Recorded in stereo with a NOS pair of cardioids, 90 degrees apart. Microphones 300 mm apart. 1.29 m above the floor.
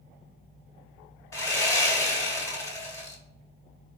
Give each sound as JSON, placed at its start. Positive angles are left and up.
{"t": 1.3, "sound": "sawing", "azimuth_deg": 10, "distance_m": 1.4}